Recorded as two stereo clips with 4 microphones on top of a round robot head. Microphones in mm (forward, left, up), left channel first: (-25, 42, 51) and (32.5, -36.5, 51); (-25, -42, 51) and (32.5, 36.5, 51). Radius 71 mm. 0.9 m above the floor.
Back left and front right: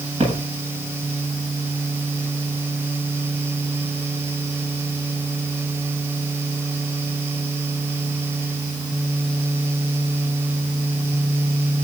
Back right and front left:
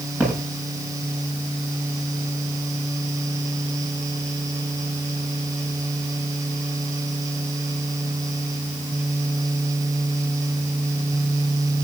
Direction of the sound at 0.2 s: 20° right.